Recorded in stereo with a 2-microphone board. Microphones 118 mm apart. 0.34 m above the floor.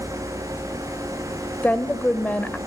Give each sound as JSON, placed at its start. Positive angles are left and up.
{"t": 1.6, "sound": "a woman speaking", "side_deg": 15, "distance_m": 1.0}